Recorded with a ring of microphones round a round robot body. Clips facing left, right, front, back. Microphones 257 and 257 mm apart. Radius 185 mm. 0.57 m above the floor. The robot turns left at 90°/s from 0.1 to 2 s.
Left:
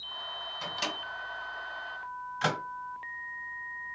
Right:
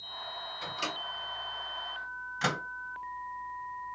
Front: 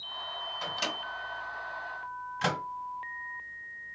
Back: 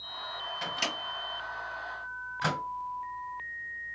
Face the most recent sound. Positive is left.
turn(degrees=-30)